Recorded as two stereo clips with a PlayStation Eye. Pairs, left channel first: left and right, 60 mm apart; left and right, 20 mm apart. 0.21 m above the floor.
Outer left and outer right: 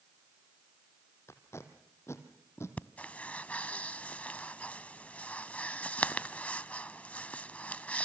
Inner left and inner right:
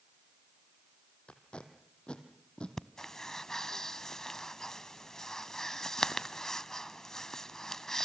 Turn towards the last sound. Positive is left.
turn(degrees=25)  # may be behind; listen again after turning